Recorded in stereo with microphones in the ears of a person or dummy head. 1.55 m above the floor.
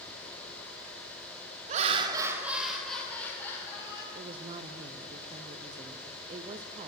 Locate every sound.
1.7 s laughter: 45° right (ahead or behind), 1.0 m; by 4.0 s 20° left (ahead or behind), 2.5 m
4.2 s a woman speaking: 35° right (ahead or behind), 0.5 m